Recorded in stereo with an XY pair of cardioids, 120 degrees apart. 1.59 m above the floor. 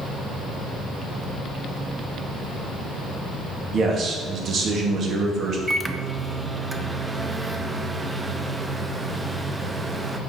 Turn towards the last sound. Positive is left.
turn(degrees=-15)